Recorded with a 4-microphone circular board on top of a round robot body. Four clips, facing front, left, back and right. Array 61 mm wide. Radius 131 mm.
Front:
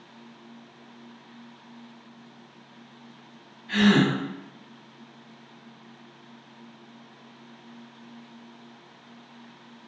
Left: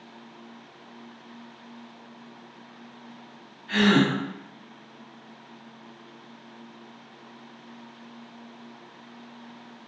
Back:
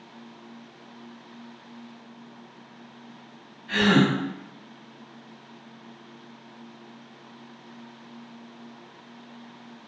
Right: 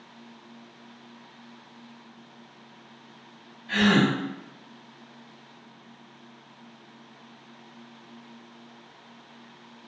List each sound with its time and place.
3.7 s a gasp: 135° left, 0.9 m